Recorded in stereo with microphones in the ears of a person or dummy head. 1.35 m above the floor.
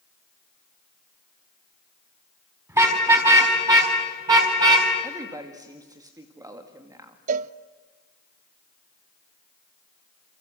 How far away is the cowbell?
About 0.5 m.